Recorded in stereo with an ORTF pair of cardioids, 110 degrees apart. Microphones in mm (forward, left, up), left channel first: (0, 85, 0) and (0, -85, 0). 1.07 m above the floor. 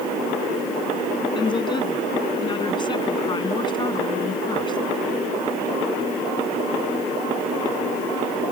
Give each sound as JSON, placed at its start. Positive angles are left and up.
{"t": 1.4, "sound": "a woman speaking", "azimuth_deg": 25}